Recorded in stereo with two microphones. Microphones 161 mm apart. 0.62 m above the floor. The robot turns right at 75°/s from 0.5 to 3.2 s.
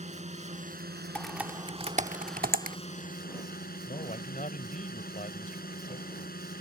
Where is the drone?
135° right; by 6.6 s 70° left.